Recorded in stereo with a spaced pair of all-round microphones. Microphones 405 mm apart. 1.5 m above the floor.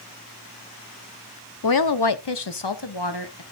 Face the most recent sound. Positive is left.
turn(degrees=75)  # may be behind; listen again after turning